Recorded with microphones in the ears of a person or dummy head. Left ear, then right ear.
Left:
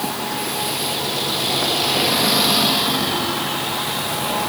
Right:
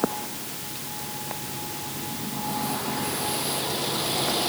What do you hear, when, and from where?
Only background noise.